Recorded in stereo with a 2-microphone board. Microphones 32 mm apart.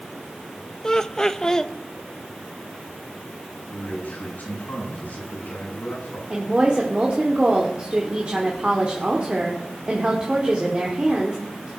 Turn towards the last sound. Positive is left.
turn(degrees=-30)  # may be behind; listen again after turning